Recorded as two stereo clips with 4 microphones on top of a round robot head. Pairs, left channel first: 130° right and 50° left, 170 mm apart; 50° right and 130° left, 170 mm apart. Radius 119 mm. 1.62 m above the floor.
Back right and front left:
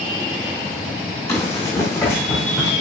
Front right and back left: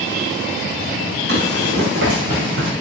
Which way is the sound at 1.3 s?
160° left.